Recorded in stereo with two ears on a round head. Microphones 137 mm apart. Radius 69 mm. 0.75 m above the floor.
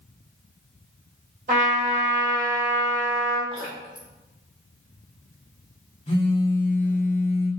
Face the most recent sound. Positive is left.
turn(degrees=35)  # may be behind; listen again after turning